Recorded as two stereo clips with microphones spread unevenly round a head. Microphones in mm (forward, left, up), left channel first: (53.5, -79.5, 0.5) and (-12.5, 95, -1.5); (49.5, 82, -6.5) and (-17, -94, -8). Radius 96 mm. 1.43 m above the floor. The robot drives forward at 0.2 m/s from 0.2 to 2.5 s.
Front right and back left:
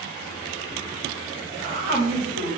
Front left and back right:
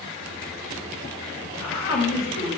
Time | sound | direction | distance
1.6 | a woman speaking | 100° left | 1.4 m